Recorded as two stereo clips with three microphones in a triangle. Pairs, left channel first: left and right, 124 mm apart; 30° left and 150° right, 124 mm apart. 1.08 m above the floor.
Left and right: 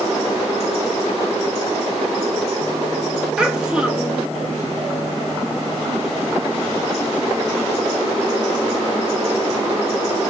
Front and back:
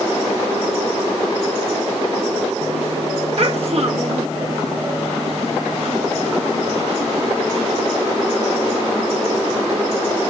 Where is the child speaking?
175° right, 0.7 m.